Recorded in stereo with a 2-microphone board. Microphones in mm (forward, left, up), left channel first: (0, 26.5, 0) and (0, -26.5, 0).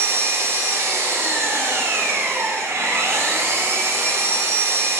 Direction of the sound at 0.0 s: 50° right (ahead or behind).